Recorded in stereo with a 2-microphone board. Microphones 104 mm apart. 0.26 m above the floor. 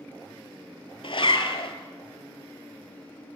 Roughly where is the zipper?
Left.